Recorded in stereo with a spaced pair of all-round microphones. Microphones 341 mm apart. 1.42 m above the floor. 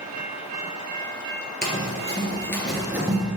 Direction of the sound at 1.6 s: 30° left (ahead or behind).